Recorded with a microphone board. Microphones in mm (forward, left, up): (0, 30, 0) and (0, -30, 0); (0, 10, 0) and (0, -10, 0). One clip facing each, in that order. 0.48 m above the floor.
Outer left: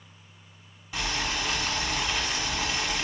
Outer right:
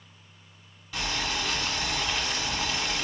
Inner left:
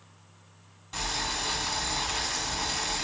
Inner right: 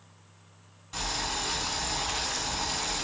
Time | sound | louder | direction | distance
0.9 | boiling | outer left 1 dB, inner left 1 dB | 15° left (ahead or behind) | 1.3 m